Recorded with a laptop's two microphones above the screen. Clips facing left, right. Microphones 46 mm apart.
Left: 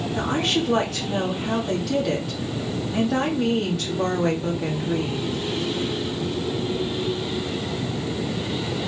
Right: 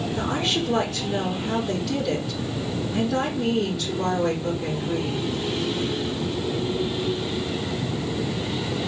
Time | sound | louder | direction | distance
0.1 | a woman speaking | left 3 dB | 70° left (ahead or behind) | 2.0 m